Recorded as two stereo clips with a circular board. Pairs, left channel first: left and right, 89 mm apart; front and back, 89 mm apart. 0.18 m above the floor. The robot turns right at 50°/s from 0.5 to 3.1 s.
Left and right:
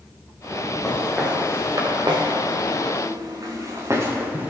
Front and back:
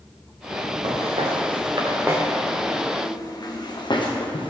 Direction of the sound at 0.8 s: 165° left.